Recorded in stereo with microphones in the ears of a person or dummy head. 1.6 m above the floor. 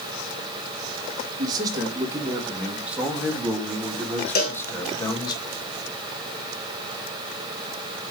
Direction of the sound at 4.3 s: 45° left (ahead or behind).